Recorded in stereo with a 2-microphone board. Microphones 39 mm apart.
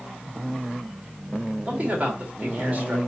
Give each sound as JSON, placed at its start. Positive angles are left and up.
{"t": 1.7, "sound": "a man speaking", "side_deg": -35, "distance_m": 3.0}